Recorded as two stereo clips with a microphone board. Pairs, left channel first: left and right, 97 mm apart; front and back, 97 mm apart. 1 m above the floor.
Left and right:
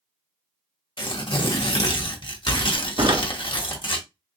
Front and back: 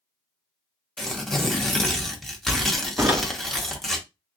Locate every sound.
1.0 s tearing paper: 85° left, 0.9 m
3.0 s a door slam: 110° right, 1.0 m